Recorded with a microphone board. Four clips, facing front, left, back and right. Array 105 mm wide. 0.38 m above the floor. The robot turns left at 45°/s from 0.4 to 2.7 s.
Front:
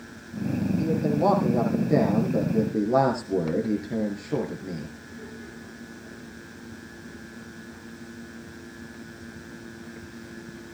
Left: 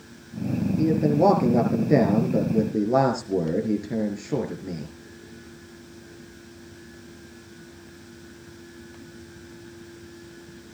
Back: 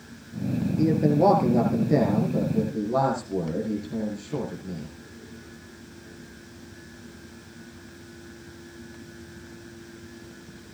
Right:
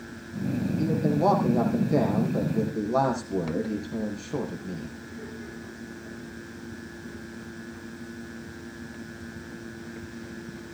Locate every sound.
0.8 s a man speaking: 145° left, 7 m; by 5.0 s 60° left, 7 m